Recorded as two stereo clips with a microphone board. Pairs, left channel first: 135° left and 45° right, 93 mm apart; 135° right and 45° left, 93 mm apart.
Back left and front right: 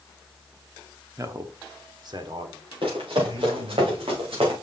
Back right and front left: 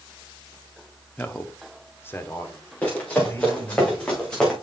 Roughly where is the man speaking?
Right.